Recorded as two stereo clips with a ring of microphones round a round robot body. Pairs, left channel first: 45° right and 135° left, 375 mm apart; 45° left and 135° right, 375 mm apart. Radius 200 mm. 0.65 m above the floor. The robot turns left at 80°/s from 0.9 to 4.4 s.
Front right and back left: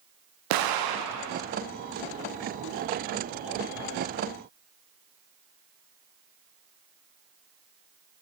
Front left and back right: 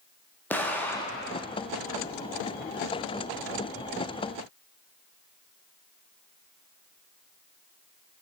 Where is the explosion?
130° left, 0.7 m; by 1.5 s 85° left, 0.7 m.